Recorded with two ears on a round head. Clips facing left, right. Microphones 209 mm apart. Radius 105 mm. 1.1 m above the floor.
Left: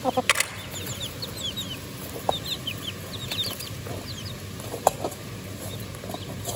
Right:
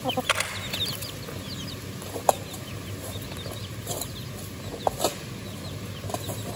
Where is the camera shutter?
35° left (ahead or behind), 1.1 m.